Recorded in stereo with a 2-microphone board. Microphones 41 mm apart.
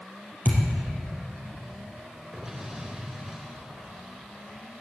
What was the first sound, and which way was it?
A thud, 45° left (ahead or behind).